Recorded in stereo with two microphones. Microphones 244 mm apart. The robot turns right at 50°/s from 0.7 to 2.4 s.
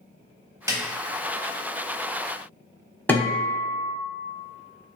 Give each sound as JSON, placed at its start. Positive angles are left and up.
{"t": 0.7, "sound": "a snare drum", "side_deg": -15, "distance_m": 0.6}
{"t": 3.1, "sound": "a guitar", "side_deg": 5, "distance_m": 0.8}